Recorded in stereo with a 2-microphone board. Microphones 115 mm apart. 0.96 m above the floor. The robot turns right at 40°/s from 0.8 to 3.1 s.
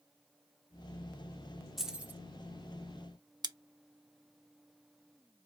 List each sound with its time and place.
1.8 s keys jangling: centre (ahead or behind), 0.8 m; by 2.2 s 20° right (ahead or behind), 0.8 m
3.4 s scissors: 35° right (ahead or behind), 0.5 m